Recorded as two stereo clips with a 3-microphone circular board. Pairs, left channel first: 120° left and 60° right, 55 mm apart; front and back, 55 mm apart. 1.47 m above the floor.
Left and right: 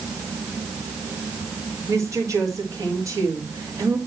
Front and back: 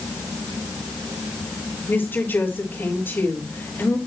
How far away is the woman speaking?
About 3.5 m.